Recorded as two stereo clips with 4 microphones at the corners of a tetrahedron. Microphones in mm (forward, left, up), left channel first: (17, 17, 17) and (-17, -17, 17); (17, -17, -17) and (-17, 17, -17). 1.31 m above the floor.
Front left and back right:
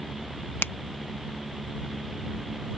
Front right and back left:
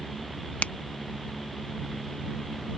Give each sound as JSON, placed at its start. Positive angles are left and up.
{"t": 0.6, "sound": "a finger snap", "azimuth_deg": 10}